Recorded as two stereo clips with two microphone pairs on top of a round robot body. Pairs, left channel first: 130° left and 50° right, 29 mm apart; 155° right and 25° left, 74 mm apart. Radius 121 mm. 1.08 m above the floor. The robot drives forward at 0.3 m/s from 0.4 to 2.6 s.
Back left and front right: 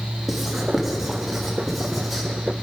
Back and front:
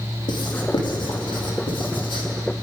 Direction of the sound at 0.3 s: 135° right.